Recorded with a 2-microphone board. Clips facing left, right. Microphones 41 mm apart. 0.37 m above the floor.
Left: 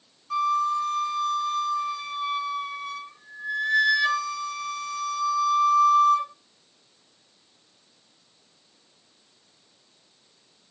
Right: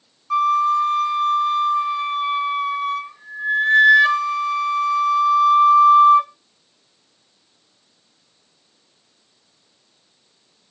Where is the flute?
35° right (ahead or behind), 0.7 m.